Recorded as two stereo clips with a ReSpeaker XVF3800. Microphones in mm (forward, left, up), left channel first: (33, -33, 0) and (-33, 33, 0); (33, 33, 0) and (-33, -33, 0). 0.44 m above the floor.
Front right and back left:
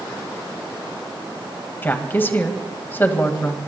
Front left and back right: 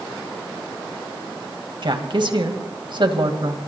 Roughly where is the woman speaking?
Right.